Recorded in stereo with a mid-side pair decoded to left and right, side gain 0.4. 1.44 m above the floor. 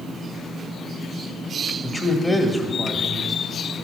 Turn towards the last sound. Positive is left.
turn(degrees=5)